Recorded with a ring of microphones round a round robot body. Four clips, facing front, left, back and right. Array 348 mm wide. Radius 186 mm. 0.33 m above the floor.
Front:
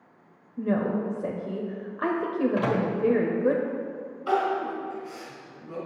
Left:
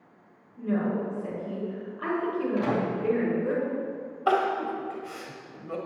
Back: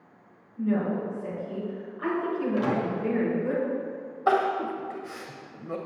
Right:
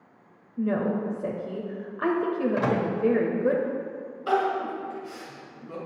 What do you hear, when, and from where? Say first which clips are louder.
0.6 s a woman speaking: right 2 dB, front 1 dB; 40° right, 1.5 m
2.6 s a microwave: left 1 dB, front 1 dB; 55° right, 1.7 m
4.3 s crying: even, back 1 dB; 145° left, 1.6 m